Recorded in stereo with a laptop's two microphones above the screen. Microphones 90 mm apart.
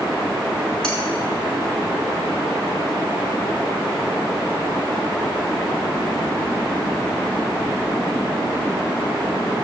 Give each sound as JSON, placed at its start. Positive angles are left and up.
{"t": 0.8, "sound": "cutlery clinking", "side_deg": 10, "distance_m": 5.0}